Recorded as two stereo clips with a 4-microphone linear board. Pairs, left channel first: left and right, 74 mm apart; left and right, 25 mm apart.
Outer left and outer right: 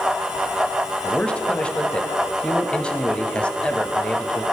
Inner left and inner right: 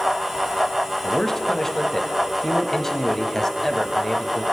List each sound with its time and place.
1.0 s a man speaking: 15° left (ahead or behind), 0.9 m